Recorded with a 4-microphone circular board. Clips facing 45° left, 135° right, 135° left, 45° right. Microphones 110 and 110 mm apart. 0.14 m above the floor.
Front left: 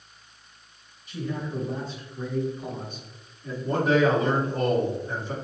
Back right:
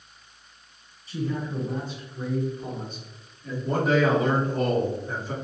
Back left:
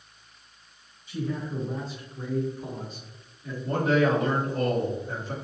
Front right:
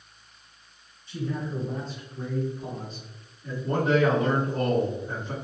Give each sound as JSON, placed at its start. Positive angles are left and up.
{"t": 1.1, "sound": "a man speaking", "azimuth_deg": -155, "distance_m": 1.6}
{"t": 3.6, "sound": "a man speaking", "azimuth_deg": -70, "distance_m": 1.4}